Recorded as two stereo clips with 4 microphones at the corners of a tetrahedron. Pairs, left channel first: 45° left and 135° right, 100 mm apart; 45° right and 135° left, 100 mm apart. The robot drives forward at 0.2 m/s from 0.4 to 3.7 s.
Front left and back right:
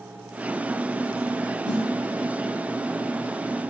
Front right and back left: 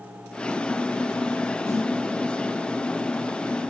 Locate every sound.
1.7 s a snare drum: 165° right, 3 m